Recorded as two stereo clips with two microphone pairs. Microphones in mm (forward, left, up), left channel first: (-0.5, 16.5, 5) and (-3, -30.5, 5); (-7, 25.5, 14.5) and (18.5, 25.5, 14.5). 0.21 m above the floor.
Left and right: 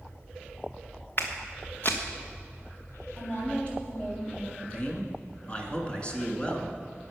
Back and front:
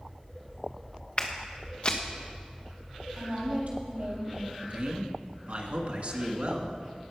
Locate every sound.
1.2 s footsteps: 130° left, 1.6 m
3.2 s a woman speaking: 25° left, 4.5 m
4.6 s a man speaking: 25° left, 1.9 m